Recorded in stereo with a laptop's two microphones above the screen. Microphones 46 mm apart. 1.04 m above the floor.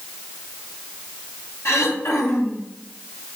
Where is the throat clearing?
75° left (ahead or behind), 2.5 m.